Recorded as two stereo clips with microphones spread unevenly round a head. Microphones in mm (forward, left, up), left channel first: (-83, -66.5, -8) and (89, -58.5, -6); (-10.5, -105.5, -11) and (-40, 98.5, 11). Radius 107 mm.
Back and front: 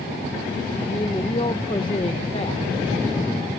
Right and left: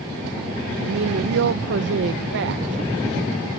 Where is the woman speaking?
115° left.